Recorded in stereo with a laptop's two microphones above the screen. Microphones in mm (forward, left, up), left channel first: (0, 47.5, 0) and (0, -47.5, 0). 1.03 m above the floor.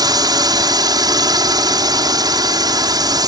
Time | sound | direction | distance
0.0 | a drone | 45° right (ahead or behind) | ?